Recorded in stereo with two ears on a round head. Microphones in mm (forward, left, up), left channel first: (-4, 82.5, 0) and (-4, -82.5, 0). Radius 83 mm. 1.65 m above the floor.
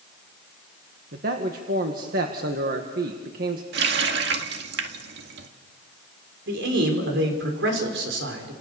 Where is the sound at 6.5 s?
70° right (ahead or behind), 5.5 m.